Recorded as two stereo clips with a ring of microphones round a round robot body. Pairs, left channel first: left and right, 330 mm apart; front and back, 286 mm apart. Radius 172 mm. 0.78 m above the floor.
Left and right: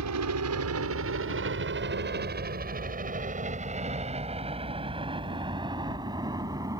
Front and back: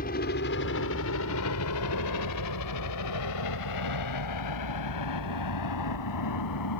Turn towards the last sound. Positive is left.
turn(degrees=-10)